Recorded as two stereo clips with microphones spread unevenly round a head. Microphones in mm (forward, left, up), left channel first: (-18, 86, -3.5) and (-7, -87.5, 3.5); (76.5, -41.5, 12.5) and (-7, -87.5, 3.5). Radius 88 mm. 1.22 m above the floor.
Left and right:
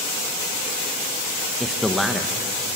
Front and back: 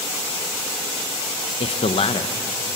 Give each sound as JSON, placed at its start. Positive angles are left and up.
{"t": 1.6, "sound": "a man speaking", "azimuth_deg": 5, "distance_m": 1.1}